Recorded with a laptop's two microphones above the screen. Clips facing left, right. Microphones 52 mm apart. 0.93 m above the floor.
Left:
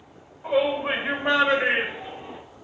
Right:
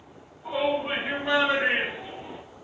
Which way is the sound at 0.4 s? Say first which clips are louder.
Left 4 dB; 65° left (ahead or behind).